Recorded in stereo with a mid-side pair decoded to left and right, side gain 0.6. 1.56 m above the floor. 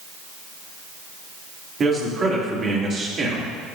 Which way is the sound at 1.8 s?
40° right.